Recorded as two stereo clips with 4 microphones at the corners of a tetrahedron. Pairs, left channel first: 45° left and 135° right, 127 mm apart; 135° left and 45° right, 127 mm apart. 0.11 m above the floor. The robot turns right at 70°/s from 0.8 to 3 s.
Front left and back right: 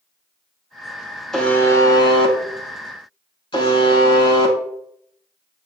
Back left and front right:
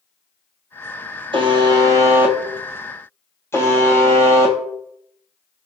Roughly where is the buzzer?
Ahead right.